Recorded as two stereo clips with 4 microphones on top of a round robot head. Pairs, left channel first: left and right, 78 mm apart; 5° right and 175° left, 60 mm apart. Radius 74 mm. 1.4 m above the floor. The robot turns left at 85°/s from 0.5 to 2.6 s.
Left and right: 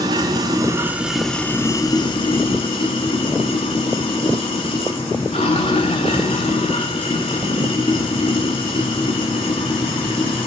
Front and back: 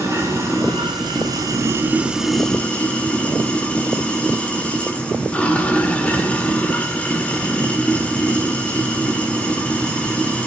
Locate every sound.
0.0 s running water: 120° right, 1.5 m; by 10.5 s 60° left, 1.5 m